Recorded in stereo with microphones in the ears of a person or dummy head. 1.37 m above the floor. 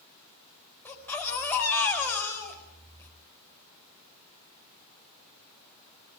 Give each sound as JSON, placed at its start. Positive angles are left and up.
{"t": 0.8, "sound": "a baby crying", "side_deg": 10, "distance_m": 5.0}